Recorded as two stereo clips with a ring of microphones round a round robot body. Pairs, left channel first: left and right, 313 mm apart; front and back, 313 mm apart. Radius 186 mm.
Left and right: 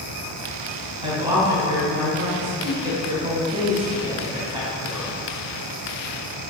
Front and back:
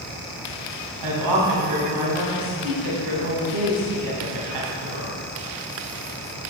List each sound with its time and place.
1.0 s a woman speaking: 165° right, 3.5 m